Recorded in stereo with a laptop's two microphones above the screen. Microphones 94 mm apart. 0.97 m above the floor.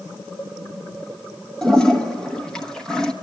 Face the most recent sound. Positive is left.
turn(degrees=5)  # may be behind; listen again after turning